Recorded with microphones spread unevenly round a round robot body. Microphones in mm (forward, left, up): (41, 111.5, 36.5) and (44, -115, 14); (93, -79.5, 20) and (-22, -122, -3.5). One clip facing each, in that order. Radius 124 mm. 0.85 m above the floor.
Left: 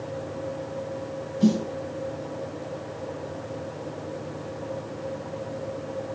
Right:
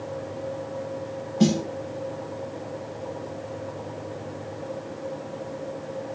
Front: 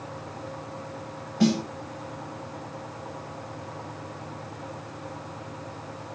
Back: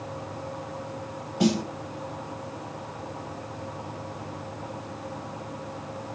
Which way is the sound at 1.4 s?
80° right.